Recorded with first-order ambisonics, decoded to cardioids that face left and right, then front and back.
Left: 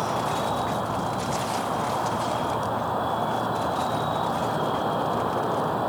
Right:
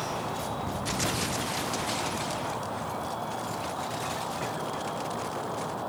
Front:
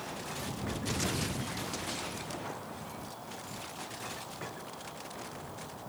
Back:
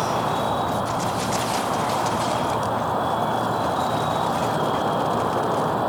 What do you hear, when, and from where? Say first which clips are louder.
0.0 s an insect: left 7 dB, back 18 dB; 155° left